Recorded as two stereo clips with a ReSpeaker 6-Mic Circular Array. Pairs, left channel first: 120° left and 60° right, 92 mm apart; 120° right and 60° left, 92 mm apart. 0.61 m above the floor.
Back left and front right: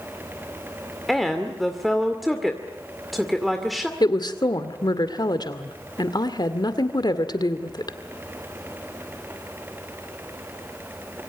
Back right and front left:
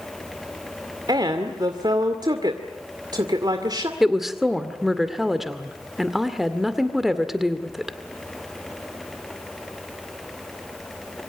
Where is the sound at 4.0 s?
145° left, 1.9 m.